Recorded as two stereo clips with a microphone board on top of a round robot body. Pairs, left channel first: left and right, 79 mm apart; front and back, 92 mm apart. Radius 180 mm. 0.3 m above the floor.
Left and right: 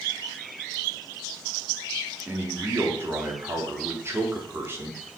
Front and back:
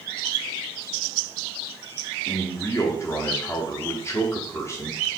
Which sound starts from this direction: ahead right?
A man speaking, at 2.3 s.